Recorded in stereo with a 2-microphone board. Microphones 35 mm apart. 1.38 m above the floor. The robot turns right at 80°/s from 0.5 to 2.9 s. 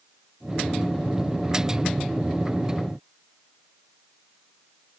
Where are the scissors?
No scissors in this recording.